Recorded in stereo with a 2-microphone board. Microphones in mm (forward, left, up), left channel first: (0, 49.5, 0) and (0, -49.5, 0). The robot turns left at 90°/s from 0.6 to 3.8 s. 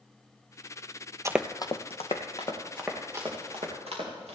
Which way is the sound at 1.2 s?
35° right (ahead or behind).